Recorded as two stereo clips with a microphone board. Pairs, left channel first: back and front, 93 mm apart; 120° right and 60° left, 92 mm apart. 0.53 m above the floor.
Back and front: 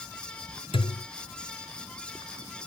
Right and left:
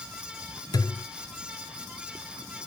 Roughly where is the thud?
Behind.